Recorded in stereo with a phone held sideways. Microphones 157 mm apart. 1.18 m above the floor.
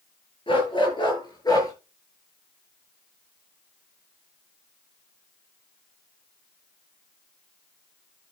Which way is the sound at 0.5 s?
35° left (ahead or behind).